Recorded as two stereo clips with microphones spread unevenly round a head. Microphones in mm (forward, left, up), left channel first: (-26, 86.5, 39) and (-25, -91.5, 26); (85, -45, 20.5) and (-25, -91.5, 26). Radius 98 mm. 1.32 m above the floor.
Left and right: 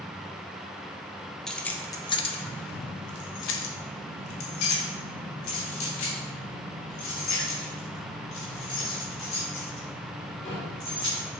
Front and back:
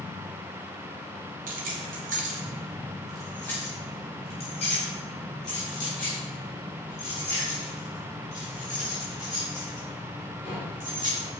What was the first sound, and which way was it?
Keys jangling, 175° left.